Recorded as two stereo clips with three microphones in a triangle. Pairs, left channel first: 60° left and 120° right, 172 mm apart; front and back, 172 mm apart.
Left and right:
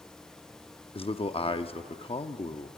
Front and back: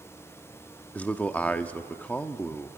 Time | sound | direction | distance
0.9 | a man speaking | 75° left | 0.8 m